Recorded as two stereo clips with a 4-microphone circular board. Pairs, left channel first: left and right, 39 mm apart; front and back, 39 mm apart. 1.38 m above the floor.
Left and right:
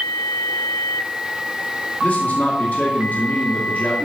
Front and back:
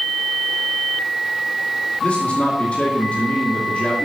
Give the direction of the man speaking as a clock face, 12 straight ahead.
10 o'clock.